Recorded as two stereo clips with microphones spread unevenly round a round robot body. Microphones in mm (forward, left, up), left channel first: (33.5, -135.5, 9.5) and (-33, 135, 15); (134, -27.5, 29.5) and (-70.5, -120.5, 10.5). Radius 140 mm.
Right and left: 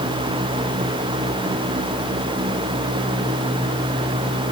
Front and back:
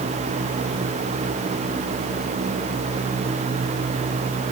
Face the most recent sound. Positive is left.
No sound to turn to.